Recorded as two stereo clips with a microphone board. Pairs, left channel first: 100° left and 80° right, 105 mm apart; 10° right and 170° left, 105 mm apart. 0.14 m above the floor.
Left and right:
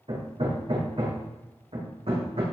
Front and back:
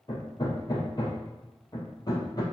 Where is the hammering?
60° right, 3.5 m.